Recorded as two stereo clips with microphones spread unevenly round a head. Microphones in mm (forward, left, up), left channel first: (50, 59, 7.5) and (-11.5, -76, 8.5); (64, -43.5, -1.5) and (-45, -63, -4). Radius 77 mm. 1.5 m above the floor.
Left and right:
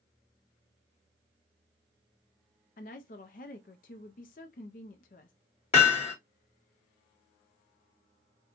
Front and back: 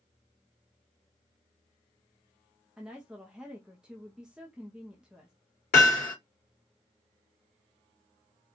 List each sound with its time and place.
2.8 s a woman speaking: 105° left, 0.5 m
5.7 s hammering: 20° left, 2.5 m